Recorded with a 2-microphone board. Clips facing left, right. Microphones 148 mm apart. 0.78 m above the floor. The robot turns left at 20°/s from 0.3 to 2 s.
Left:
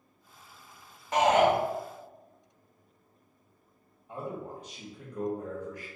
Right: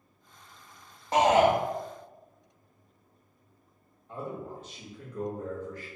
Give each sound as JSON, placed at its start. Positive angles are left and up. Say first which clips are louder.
{"t": 1.1, "sound": "a shout", "louder": "right 1 dB", "side_deg": -30, "distance_m": 0.5}
{"t": 4.1, "sound": "a man speaking", "louder": "even", "side_deg": 15, "distance_m": 0.8}